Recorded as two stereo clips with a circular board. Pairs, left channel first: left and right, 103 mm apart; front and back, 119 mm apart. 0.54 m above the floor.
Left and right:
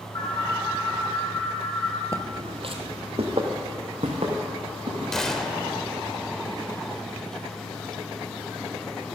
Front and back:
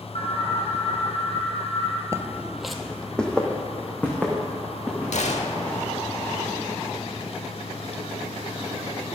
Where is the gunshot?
5° left, 1.0 m.